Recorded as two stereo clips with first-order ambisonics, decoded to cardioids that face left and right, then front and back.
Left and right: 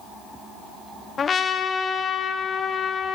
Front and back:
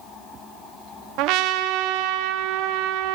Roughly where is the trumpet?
Behind.